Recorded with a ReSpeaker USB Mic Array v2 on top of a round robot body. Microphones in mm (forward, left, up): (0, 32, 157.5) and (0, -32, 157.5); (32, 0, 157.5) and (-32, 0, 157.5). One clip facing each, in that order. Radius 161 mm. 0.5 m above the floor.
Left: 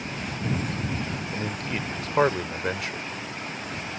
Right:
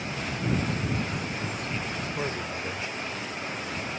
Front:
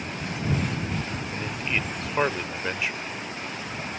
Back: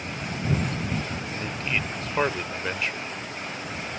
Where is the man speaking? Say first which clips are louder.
Left 2 dB, even; 85° left.